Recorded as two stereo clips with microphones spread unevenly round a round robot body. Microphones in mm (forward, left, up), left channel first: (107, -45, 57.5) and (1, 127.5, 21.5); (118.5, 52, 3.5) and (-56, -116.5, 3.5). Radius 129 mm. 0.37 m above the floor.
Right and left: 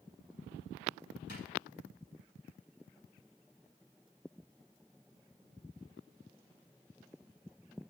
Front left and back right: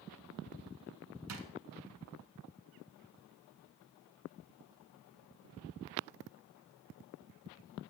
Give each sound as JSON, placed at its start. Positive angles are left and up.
{"t": 1.3, "sound": "a drawer", "azimuth_deg": -115, "distance_m": 1.2}